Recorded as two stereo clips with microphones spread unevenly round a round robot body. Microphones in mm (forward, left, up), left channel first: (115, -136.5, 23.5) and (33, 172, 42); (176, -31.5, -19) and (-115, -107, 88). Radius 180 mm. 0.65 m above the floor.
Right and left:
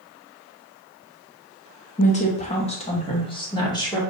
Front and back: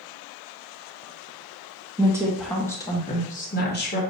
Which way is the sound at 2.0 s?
65° right.